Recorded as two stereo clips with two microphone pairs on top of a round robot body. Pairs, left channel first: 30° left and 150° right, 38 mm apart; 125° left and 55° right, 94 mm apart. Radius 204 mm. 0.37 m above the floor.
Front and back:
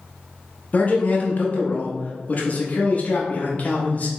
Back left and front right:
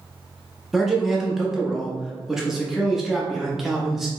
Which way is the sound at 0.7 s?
40° left.